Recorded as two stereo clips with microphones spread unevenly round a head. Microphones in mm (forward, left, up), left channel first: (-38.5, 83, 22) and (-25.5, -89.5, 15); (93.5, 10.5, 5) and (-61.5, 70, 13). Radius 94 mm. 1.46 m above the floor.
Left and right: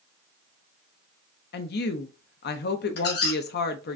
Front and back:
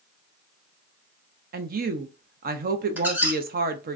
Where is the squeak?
85° left, 1.2 m.